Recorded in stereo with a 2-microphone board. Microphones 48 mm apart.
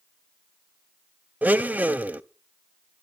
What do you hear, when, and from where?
1.4 s a blender: 35° right (ahead or behind), 0.5 m